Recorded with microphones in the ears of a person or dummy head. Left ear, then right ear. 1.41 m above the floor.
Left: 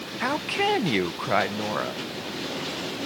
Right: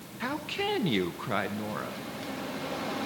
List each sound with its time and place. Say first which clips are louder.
0.2 s a woman speaking: left 7 dB; 25° left (ahead or behind), 0.6 m